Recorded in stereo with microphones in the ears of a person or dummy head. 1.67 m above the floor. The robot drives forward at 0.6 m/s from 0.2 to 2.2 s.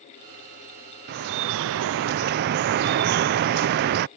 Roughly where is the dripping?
Right.